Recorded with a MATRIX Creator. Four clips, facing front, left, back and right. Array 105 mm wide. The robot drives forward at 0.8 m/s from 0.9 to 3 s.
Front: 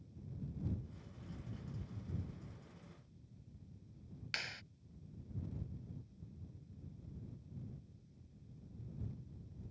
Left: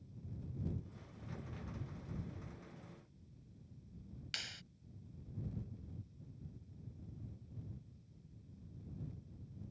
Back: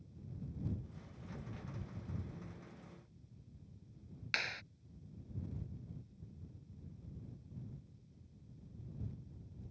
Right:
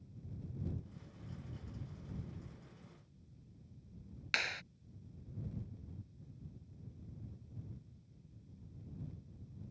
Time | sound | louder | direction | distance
4.3 | a clap | right 14 dB, back 5 dB | 115° right | ?